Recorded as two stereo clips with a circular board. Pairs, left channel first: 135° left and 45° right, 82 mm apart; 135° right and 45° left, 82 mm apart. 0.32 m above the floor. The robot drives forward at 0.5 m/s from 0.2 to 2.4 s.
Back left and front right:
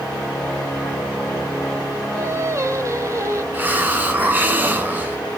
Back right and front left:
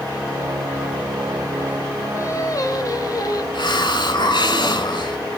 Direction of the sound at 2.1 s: 85° right.